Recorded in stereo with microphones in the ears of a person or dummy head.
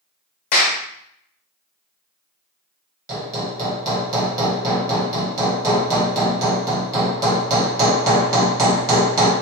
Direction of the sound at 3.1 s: 20° right (ahead or behind).